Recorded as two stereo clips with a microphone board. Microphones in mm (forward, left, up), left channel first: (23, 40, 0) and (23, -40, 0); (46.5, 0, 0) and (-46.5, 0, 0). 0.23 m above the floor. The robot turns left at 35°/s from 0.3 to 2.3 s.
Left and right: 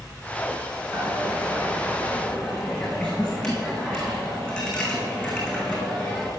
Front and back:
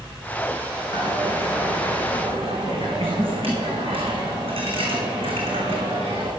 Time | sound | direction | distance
0.9 | a dropped coin | 140° right | 3.5 m